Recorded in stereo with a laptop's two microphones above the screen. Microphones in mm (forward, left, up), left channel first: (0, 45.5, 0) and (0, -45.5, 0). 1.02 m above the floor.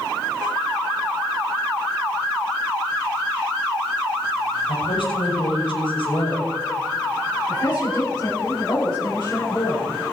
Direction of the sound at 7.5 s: 50° left (ahead or behind).